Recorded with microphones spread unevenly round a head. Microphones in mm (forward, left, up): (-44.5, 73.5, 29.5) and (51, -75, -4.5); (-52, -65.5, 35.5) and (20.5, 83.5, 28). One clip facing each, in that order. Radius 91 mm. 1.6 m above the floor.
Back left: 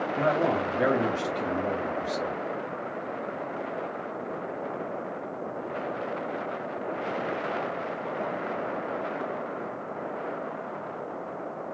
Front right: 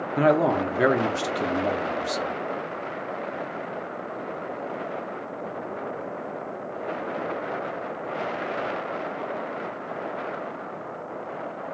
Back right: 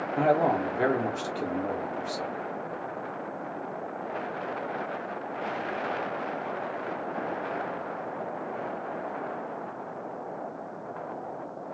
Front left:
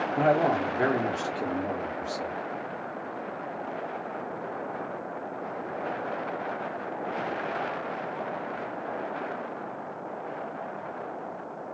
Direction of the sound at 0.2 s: 30° right.